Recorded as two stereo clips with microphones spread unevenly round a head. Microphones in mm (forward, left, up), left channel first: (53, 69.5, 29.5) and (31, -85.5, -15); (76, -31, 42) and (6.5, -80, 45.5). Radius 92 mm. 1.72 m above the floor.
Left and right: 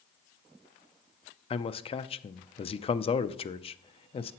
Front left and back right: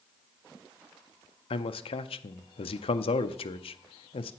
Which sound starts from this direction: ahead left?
A man speaking, at 1.5 s.